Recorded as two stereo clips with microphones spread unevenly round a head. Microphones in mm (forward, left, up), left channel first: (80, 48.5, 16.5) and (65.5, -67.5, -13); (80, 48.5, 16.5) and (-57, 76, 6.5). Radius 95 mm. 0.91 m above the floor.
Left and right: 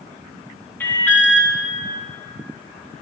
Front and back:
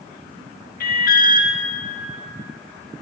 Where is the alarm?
5° left, 1.3 m.